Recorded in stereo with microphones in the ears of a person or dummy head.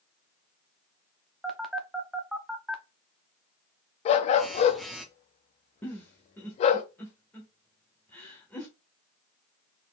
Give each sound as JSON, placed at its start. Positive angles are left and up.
{"t": 1.4, "sound": "a phone buzzing", "side_deg": -5, "distance_m": 0.7}
{"t": 4.0, "sound": "a dog barking", "side_deg": 30, "distance_m": 0.6}
{"t": 5.8, "sound": "a giggle", "side_deg": 10, "distance_m": 1.2}